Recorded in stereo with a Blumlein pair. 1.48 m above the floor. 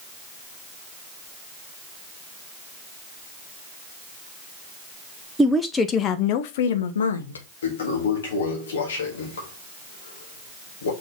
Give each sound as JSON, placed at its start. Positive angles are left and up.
{"t": 5.4, "sound": "a woman speaking", "azimuth_deg": -5, "distance_m": 0.8}
{"t": 7.6, "sound": "a toilet flushing", "azimuth_deg": 65, "distance_m": 3.0}